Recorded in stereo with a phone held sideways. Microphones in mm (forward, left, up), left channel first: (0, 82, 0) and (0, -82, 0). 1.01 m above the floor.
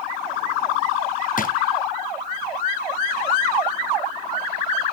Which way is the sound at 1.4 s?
55° left (ahead or behind).